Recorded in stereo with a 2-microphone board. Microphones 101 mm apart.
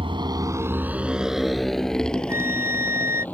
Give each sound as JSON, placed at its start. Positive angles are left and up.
{"t": 0.0, "sound": "a motorcycle", "side_deg": -60}
{"t": 2.3, "sound": "a flute", "side_deg": -25}